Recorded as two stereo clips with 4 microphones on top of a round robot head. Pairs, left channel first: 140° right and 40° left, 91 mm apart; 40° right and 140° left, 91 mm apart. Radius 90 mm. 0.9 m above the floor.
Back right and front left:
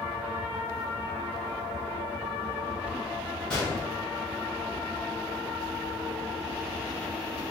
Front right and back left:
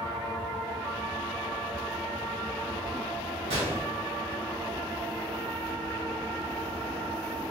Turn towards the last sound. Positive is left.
turn(degrees=140)